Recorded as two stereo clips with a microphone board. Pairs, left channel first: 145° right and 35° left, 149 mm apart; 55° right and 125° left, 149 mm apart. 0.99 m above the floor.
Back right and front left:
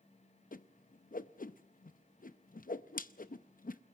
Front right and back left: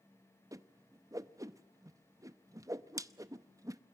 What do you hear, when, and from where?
0.5 s a whoosh: 165° right, 0.6 m